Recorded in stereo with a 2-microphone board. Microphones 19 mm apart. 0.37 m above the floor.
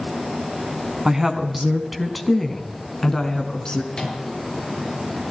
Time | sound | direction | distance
1.1 | a woman speaking | 25° right (ahead or behind) | 3 m
3.9 | a microwave | 45° left (ahead or behind) | 6 m